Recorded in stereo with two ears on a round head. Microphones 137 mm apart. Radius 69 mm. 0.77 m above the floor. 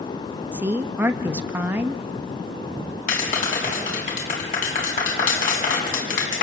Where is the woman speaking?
10° right (ahead or behind), 1.0 m.